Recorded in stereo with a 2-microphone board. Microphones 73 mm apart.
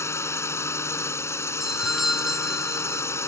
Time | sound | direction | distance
0.0 | a drone | 35° left (ahead or behind) | ?
1.6 | a doorbell | 5° right (ahead or behind) | ?